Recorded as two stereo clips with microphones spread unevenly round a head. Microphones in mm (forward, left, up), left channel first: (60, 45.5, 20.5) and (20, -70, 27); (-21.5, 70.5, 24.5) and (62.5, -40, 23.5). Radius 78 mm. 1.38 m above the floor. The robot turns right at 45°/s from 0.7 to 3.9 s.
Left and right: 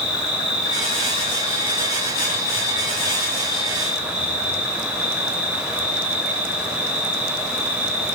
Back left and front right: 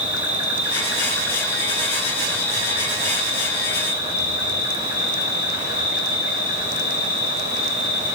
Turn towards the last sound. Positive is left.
turn(degrees=170)